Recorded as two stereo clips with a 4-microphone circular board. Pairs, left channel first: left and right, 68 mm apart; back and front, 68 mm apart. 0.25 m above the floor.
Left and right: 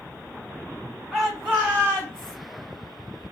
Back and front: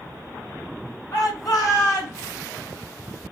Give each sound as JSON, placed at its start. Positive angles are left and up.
{"t": 1.1, "sound": "a shout", "azimuth_deg": -170, "distance_m": 3.0}